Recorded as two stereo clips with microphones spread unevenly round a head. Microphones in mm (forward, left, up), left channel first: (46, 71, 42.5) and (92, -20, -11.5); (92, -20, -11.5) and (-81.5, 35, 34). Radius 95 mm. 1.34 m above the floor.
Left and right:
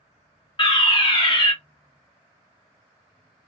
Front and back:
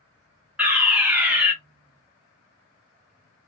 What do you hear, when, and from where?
0.6 s a fire alarm: 60° left, 0.8 m